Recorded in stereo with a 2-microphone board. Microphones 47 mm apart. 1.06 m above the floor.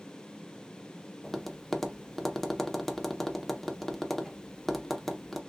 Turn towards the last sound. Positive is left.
turn(degrees=5)  # may be behind; listen again after turning